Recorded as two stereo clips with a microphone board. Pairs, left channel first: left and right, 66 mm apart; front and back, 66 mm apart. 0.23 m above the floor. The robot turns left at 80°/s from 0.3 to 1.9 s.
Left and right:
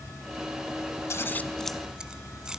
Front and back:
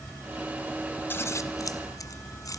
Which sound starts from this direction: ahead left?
Scissors, at 1.1 s.